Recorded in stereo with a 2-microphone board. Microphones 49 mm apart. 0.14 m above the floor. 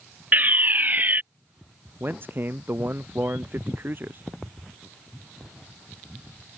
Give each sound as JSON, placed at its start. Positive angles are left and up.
{"t": 0.3, "sound": "a fire alarm", "side_deg": -40}
{"t": 2.0, "sound": "a man speaking", "side_deg": -45}